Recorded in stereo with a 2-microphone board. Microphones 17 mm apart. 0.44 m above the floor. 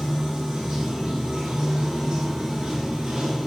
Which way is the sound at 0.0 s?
80° right.